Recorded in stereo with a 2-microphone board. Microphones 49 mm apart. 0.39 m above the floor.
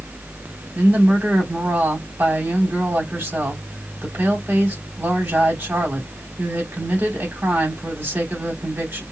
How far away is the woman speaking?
About 3 m.